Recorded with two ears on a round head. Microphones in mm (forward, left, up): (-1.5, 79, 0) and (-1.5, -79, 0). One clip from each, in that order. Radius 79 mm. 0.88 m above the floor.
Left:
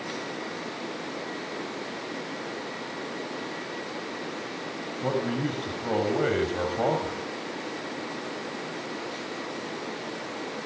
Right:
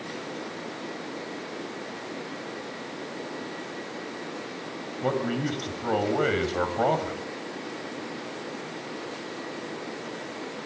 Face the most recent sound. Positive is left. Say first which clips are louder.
# right 1 dB
turn(degrees=-30)  # may be behind; listen again after turning